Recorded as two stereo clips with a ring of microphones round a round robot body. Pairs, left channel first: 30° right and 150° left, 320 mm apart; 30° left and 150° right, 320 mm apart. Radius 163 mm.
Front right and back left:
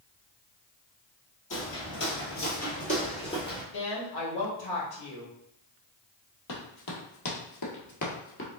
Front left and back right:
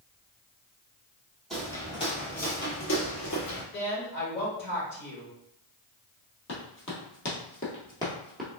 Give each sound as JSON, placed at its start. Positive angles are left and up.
{"t": 1.5, "sound": "footsteps", "azimuth_deg": -60, "distance_m": 1.2}
{"t": 3.7, "sound": "a woman speaking", "azimuth_deg": -30, "distance_m": 1.8}
{"t": 6.5, "sound": "running footsteps", "azimuth_deg": -15, "distance_m": 1.9}